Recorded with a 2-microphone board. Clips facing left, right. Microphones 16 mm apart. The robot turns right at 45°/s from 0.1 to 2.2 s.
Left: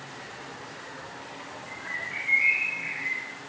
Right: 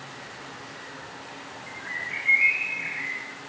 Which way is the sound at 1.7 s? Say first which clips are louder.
Right 2 dB; 5° left (ahead or behind).